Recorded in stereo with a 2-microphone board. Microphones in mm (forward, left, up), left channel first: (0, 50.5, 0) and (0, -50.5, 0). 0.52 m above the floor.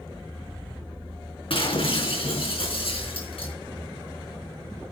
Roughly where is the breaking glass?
Left.